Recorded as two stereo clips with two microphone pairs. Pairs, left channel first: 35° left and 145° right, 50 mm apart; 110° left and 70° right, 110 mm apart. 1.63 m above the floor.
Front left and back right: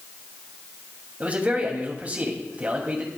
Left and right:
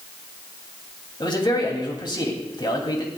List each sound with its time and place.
1.2 s a man speaking: 155° left, 2.5 m